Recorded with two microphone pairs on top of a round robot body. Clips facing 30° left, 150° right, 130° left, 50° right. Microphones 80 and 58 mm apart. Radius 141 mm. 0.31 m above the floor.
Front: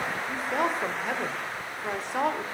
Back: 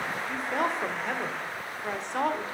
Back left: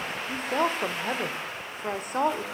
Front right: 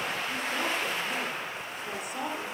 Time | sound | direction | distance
0.3 | a woman speaking | 115° left | 1.7 m